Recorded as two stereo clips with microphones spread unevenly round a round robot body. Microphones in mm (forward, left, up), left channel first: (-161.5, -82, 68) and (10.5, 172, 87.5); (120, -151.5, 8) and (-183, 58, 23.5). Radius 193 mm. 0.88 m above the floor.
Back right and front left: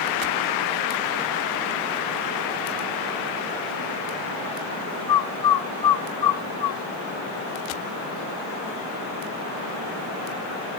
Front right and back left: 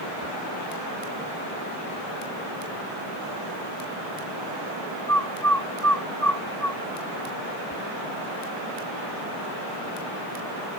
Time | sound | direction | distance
5.1 | a bird | 120° right | 1.4 m